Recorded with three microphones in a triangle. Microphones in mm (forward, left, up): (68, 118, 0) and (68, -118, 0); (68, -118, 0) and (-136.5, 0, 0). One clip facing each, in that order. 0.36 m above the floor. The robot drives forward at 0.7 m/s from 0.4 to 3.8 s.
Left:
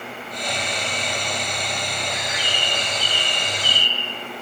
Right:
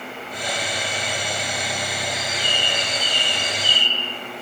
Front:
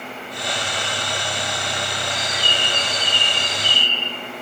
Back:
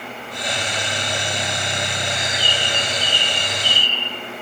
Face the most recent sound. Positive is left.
turn(degrees=15)